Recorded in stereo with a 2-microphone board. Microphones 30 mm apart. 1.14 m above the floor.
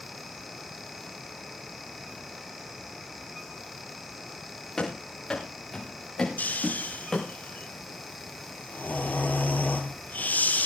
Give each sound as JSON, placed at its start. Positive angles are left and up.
{"t": 4.8, "sound": "running footsteps", "side_deg": 25, "distance_m": 8.5}
{"t": 6.4, "sound": "snoring", "side_deg": 75, "distance_m": 4.5}